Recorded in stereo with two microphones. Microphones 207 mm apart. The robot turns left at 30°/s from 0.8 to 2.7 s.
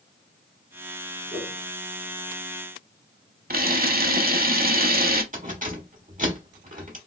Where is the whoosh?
55° left (ahead or behind), 2 m; by 1.6 s 60° left (ahead or behind), 2 m.